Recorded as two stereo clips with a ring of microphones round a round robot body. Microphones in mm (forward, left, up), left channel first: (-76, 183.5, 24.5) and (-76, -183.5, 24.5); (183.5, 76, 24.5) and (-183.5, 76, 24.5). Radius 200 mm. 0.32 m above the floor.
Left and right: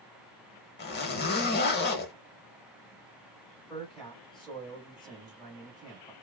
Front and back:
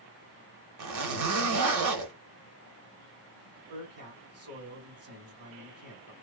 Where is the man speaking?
Straight behind, 1.3 m.